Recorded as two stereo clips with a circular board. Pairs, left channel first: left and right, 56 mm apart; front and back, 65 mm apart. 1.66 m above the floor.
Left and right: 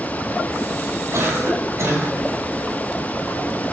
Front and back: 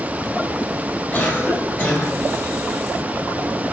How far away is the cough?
About 6 m.